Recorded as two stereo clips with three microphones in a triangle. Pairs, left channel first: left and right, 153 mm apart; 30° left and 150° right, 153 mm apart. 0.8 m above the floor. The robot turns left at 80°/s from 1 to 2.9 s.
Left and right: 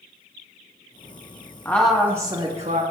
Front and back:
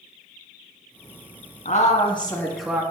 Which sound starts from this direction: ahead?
A woman speaking, at 1.6 s.